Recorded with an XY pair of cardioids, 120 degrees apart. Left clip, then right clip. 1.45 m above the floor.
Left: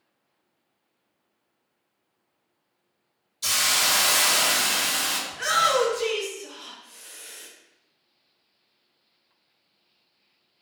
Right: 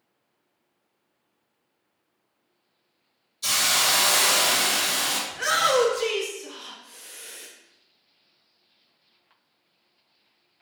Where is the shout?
Straight ahead, 0.9 m.